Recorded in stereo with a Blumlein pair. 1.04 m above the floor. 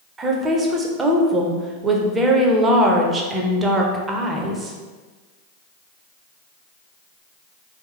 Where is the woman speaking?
15° right, 0.7 m.